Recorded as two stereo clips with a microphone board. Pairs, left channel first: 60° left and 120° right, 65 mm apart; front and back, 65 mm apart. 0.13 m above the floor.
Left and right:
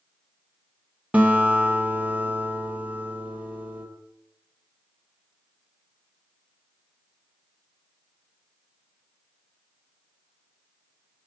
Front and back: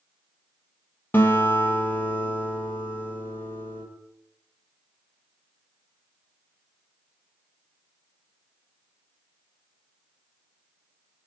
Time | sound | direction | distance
1.1 | a guitar | 55° right | 3.5 m